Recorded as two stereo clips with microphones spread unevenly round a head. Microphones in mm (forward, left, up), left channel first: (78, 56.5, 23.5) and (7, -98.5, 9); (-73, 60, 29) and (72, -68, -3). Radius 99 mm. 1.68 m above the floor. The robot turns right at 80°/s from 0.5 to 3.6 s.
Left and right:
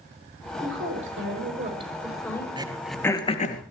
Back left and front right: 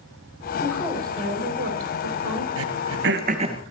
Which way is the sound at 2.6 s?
50° right.